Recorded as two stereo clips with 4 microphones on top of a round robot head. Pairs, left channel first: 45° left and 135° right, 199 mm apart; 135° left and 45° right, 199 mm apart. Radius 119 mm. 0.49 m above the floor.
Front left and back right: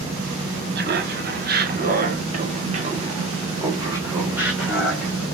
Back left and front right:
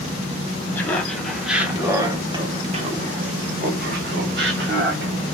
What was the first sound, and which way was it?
Laughter, 150° right.